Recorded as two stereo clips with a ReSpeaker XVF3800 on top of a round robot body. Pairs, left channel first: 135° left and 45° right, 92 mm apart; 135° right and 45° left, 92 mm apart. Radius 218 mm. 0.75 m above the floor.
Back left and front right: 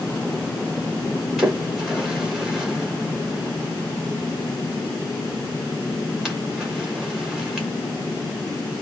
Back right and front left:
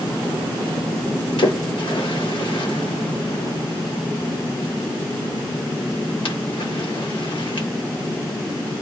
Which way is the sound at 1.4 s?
130° right.